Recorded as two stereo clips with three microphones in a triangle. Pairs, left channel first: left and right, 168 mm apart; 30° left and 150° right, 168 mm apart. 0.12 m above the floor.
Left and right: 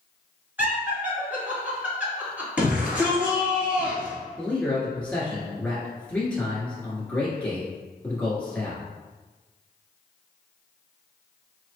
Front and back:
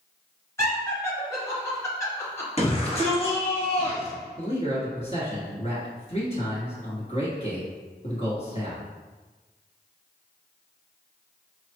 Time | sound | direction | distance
0.6 | laughter | 25° right | 1.5 m
2.6 | a shout | 10° right | 1.9 m
4.4 | a man speaking | 10° left | 1.8 m